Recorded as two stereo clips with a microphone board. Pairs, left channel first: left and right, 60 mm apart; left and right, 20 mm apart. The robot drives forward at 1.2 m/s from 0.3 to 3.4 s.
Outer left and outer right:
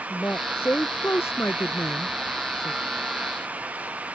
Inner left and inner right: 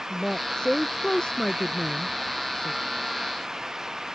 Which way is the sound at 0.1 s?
35° left (ahead or behind).